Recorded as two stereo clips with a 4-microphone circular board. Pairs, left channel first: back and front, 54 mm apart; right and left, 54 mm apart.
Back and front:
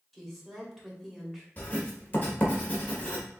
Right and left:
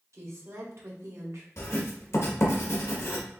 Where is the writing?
120° right, 1.6 m.